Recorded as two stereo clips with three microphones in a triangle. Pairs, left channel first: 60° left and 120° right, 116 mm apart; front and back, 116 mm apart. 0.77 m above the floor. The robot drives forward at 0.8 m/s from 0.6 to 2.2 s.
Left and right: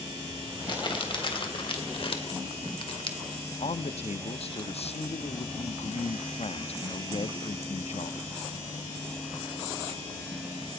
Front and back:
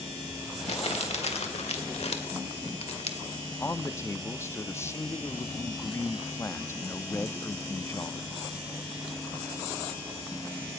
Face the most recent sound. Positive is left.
turn(degrees=65)